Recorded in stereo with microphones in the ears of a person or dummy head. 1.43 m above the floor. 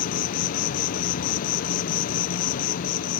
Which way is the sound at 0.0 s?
55° left (ahead or behind).